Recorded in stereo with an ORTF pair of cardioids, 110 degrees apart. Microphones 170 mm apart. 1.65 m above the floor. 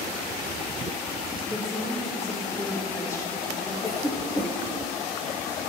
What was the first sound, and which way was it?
A woman speaking, 20° left.